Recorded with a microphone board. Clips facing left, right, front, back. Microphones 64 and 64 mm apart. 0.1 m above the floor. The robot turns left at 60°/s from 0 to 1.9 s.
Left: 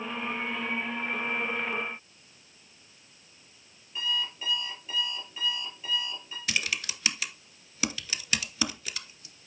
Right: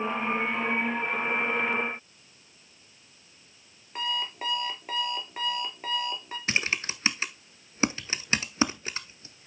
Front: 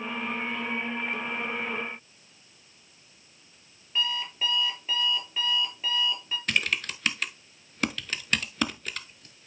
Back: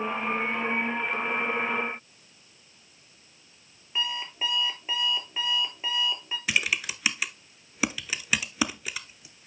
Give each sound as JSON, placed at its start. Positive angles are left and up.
{"t": 4.0, "sound": "an alarm clock", "azimuth_deg": -110, "distance_m": 1.6}
{"t": 6.5, "sound": "typing on a keyboard", "azimuth_deg": -105, "distance_m": 0.7}